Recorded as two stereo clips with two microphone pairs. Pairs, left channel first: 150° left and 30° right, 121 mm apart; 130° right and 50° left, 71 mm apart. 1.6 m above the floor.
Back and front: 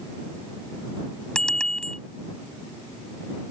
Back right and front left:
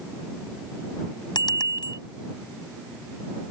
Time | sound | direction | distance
1.4 | a bicycle bell | 130° right | ?